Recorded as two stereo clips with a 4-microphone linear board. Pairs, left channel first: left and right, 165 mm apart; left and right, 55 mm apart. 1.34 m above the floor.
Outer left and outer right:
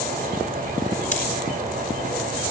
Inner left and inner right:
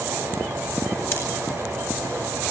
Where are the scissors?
50° left (ahead or behind), 7.5 m.